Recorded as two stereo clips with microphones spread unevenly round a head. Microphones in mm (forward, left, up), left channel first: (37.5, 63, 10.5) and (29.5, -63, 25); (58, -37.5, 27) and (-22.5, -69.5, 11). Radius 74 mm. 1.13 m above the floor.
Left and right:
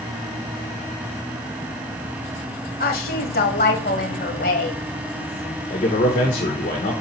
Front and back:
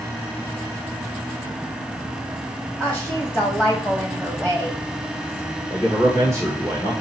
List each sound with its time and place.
2.8 s a woman speaking: 100° left, 1.6 m
5.7 s a man speaking: 95° left, 1.3 m